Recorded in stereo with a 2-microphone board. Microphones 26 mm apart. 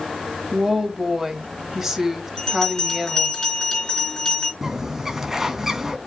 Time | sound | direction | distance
0.5 | a woman speaking | 15° right (ahead or behind) | 1.7 m
2.4 | a bell | 25° left (ahead or behind) | 3 m
4.6 | a bird | 15° right (ahead or behind) | 1.5 m